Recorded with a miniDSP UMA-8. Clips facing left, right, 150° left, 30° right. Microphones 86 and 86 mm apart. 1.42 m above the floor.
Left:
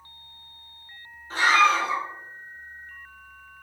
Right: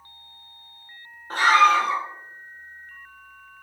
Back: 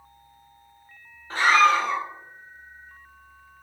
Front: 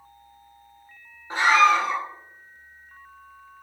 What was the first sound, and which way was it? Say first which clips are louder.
A scream: right 3 dB, front 1 dB; 100° right.